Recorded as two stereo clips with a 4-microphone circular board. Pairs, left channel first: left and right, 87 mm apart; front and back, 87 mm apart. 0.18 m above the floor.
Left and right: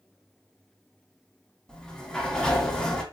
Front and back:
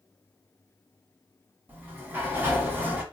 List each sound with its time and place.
1.7 s a sliding door: 155° left, 1.0 m